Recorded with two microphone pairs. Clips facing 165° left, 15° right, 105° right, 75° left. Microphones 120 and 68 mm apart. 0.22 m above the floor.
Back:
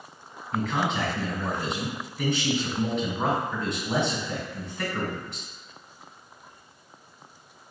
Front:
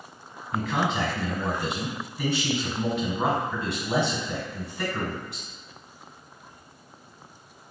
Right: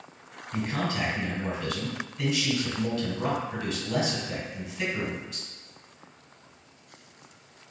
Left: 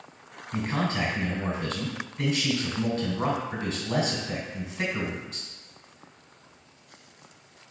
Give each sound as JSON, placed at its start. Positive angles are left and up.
{"t": 0.5, "sound": "a man speaking", "azimuth_deg": 75, "distance_m": 1.3}